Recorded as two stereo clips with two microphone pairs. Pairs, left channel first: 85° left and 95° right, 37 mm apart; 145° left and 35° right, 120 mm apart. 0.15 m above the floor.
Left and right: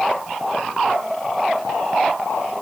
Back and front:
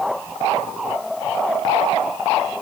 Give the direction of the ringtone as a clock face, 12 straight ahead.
I don't hear a ringtone.